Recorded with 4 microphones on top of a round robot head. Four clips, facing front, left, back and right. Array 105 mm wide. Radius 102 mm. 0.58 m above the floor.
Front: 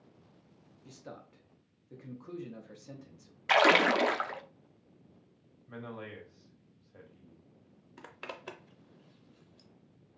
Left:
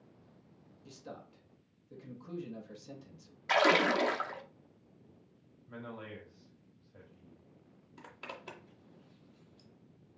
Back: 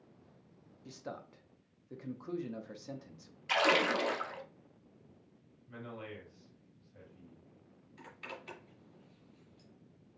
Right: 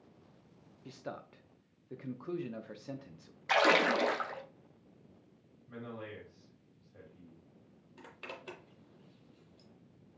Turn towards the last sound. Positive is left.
turn(degrees=10)